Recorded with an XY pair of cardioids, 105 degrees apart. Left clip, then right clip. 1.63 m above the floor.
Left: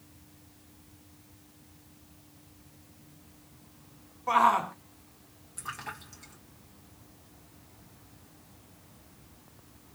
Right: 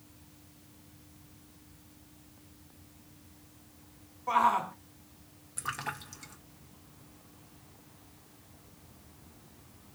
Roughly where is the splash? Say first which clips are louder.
Right 3 dB; ahead right.